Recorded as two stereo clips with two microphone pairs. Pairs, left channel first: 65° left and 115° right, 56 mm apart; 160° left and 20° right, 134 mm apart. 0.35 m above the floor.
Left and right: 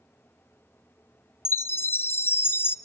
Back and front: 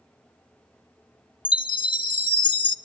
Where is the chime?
110° left, 0.6 m.